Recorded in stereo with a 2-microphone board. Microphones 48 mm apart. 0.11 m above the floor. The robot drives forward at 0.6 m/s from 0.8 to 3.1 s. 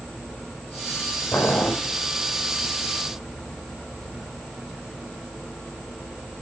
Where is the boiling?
65° left (ahead or behind), 4 m; by 1.7 s 60° left (ahead or behind), 4.5 m.